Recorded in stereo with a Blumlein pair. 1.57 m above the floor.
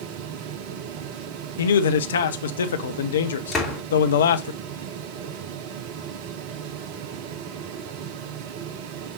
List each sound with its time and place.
0.0 s a fan: 45° right, 0.8 m
1.6 s a man speaking: 65° left, 0.8 m
3.5 s a door slam: 10° left, 4 m